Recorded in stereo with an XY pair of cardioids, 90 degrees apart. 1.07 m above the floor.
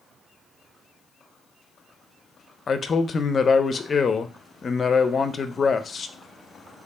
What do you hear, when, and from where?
2.7 s a man speaking: 45° left, 0.5 m